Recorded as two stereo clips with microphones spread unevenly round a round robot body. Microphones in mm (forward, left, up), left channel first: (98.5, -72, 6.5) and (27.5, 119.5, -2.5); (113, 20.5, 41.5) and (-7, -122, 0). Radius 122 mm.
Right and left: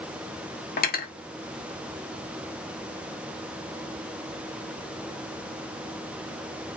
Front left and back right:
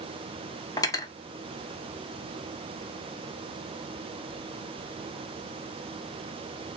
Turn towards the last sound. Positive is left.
turn(degrees=-20)